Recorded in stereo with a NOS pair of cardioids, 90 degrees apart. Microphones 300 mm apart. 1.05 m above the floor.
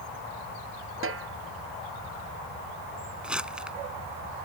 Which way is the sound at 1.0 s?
45° right.